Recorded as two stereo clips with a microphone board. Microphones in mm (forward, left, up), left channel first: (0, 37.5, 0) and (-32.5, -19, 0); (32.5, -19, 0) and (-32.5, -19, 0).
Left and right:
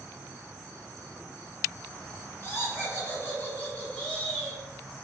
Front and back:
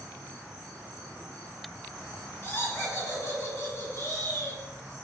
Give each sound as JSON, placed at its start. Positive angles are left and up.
{"t": 2.4, "sound": "laughter", "azimuth_deg": 30, "distance_m": 2.0}